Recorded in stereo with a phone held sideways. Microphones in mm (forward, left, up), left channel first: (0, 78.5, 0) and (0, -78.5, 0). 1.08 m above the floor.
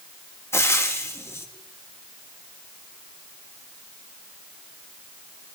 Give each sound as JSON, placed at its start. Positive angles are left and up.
{"t": 0.5, "sound": "frying", "side_deg": 15, "distance_m": 1.6}